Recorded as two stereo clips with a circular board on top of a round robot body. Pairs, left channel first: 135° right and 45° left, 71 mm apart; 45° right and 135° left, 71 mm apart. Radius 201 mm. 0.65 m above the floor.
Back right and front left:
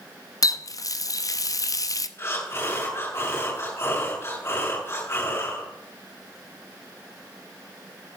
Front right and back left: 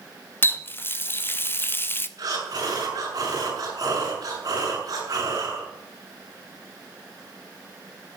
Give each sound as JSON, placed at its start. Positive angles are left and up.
{"t": 0.4, "sound": "a running tap", "azimuth_deg": -100, "distance_m": 0.9}
{"t": 2.2, "sound": "breathing", "azimuth_deg": 170, "distance_m": 7.0}